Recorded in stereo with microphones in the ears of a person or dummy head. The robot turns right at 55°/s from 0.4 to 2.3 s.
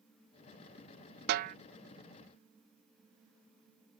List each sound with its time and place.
1.3 s a snare drum: 55° right (ahead or behind); by 1.6 s 40° right (ahead or behind)